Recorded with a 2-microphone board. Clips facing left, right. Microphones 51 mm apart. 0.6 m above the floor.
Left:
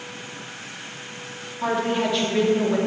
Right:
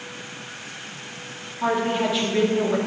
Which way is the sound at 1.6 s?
5° right (ahead or behind).